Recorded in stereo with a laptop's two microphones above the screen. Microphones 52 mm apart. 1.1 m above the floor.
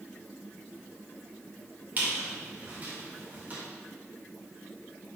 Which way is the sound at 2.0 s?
35° right (ahead or behind).